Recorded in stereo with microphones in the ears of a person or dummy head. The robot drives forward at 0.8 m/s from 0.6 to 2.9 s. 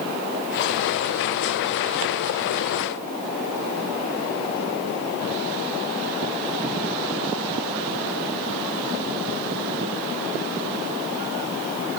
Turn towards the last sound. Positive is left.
No sound to turn to.